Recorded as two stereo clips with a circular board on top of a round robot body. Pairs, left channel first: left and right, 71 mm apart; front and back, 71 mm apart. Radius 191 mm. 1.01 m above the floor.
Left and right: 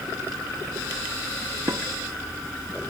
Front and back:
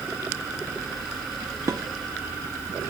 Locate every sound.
1.7 s dishes clattering: 140° right, 1.4 m